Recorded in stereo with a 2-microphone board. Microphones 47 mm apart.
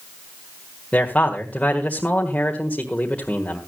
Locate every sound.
0.9 s a man speaking: 30° left (ahead or behind), 1.5 m